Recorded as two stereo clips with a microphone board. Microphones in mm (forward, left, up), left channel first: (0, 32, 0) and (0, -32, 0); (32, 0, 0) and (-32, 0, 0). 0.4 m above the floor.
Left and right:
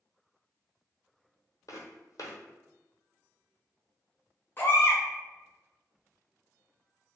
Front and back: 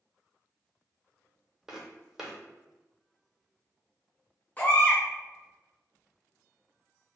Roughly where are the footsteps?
Left.